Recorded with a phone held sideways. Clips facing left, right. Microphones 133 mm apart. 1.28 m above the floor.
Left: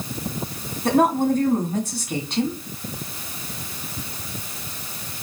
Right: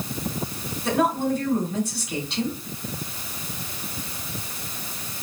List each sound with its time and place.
0.8 s a woman speaking: 45° left (ahead or behind), 1.8 m